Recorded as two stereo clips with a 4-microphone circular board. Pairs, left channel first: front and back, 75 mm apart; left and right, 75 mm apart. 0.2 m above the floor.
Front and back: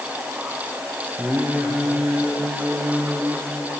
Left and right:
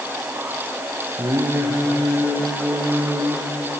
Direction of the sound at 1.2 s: 110° right.